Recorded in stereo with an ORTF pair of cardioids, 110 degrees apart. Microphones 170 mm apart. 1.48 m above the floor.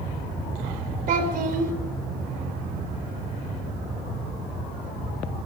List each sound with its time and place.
1.1 s a child speaking: 55° right, 3 m